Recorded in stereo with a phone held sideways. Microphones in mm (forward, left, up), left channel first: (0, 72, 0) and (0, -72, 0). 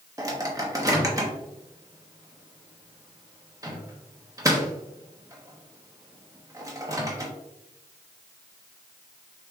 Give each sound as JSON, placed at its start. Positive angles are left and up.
{"t": 0.2, "sound": "a microwave", "side_deg": -20, "distance_m": 1.0}